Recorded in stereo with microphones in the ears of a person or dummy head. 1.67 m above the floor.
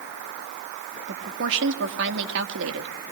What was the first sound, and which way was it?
A woman speaking, 70° right (ahead or behind).